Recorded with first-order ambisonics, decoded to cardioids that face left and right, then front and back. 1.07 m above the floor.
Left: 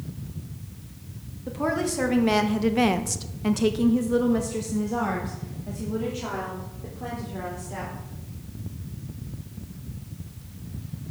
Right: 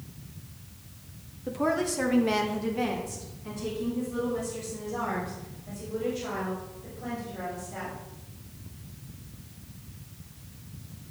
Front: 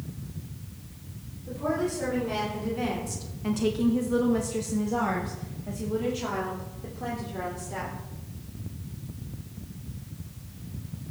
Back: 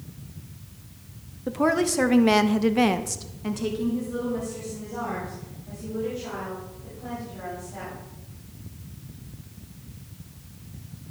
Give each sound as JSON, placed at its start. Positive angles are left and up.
{"t": 1.5, "sound": "a woman speaking", "azimuth_deg": 180, "distance_m": 1.6}